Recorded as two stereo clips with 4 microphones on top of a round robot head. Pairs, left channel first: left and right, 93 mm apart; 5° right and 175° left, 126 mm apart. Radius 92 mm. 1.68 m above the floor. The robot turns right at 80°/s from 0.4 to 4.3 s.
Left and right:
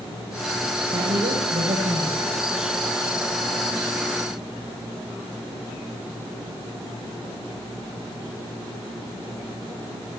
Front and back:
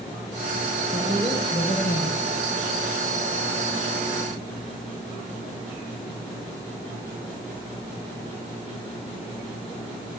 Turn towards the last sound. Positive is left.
turn(degrees=165)